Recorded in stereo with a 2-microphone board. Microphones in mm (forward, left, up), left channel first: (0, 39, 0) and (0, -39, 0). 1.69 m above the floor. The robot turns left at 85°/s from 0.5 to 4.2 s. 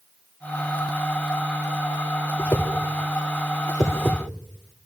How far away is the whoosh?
About 3 m.